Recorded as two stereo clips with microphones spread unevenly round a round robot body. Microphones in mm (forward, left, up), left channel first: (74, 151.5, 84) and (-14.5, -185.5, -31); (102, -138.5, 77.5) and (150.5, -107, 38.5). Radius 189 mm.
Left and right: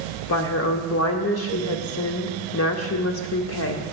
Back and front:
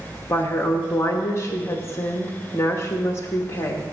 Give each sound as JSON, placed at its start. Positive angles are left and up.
{"t": 0.3, "sound": "a woman speaking", "azimuth_deg": 130, "distance_m": 0.8}